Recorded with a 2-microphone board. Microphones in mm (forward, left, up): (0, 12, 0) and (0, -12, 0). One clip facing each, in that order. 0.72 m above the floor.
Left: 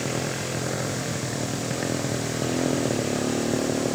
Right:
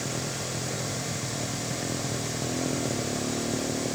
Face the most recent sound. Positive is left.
turn(degrees=25)  # may be behind; listen again after turning